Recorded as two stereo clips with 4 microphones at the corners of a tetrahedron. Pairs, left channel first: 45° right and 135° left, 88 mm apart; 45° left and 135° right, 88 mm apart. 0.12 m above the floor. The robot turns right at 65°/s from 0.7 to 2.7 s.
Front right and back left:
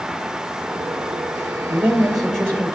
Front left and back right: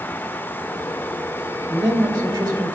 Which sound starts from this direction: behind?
A man speaking, at 1.7 s.